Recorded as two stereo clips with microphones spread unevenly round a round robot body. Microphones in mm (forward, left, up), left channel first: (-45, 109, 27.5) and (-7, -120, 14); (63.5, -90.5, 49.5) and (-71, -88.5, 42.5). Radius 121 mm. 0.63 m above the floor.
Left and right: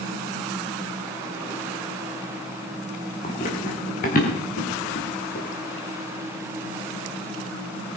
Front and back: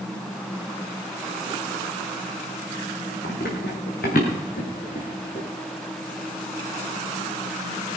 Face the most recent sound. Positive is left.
turn(degrees=50)